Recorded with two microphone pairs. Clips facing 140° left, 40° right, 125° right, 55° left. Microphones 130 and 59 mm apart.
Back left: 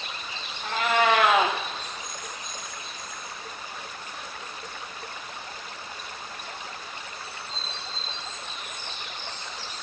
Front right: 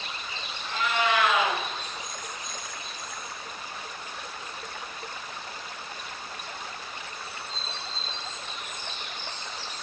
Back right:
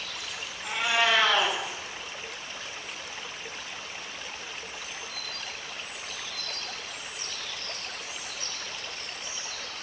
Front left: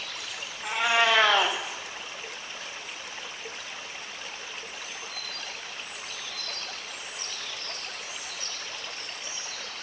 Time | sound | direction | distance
0.6 | a cat meowing | 100° left | 3 m